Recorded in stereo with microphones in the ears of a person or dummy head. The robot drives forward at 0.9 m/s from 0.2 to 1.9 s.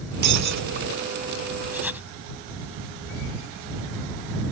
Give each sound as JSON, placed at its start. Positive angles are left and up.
{"t": 0.2, "sound": "breaking glass", "side_deg": -50}
{"t": 1.7, "sound": "writing", "side_deg": -5}